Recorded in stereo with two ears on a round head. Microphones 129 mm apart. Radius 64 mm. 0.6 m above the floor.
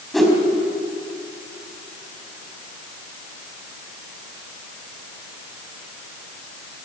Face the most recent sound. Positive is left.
turn(degrees=0)  # may be behind; listen again after turning